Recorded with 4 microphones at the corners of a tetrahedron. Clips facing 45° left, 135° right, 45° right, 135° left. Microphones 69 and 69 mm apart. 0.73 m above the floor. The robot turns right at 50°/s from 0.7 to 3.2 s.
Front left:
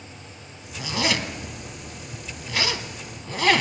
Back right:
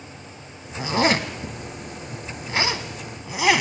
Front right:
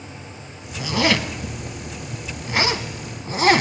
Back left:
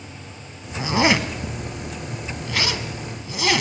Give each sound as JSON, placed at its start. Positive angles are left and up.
{"t": 0.8, "sound": "a zipper", "azimuth_deg": 180, "distance_m": 0.8}